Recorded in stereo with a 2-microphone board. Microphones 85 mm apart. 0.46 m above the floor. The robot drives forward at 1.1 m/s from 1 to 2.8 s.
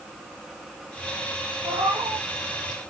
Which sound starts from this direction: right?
A cat meowing, at 1.6 s.